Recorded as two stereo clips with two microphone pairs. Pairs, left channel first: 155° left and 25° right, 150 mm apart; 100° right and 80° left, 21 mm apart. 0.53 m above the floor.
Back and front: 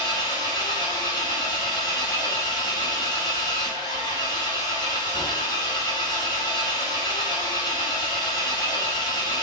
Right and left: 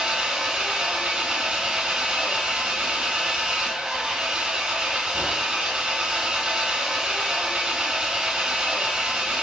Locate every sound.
0.0 s an engine running: 95° left, 3 m